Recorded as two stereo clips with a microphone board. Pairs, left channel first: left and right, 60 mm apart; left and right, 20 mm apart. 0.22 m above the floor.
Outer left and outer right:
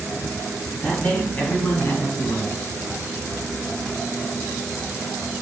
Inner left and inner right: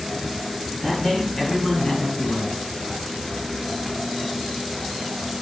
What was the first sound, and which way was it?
A man speaking, 15° left (ahead or behind).